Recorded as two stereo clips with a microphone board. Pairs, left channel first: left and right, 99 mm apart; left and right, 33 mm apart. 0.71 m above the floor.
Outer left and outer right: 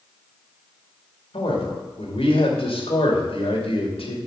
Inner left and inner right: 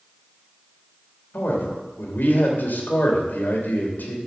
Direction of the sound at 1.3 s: 75° left (ahead or behind).